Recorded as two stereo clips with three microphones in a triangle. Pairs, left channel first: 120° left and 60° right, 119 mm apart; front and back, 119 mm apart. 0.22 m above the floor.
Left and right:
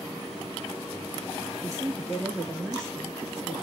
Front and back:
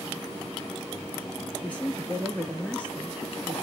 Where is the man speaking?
60° right, 1.1 m.